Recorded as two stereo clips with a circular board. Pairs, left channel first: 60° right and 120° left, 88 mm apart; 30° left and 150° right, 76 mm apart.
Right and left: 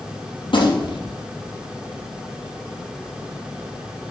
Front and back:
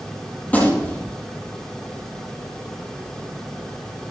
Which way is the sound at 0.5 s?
40° right.